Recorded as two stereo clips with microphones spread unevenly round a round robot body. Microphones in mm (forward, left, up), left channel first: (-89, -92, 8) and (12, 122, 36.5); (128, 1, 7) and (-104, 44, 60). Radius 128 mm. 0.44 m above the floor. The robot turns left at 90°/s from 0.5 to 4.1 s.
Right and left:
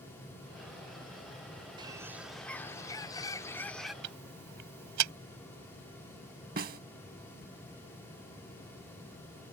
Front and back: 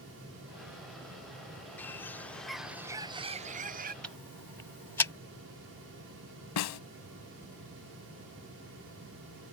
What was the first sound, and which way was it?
A bird, 5° left.